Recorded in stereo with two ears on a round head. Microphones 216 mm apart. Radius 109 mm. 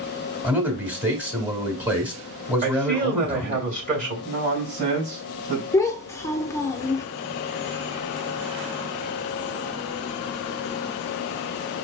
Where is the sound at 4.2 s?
40° right (ahead or behind), 2.5 m.